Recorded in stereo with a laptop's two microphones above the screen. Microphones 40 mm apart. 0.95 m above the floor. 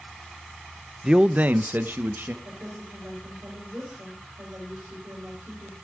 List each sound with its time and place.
1.0 s a man speaking: 10° right (ahead or behind), 0.7 m; by 2.3 s 55° right (ahead or behind), 1.3 m
2.4 s a woman speaking: 65° right (ahead or behind), 5 m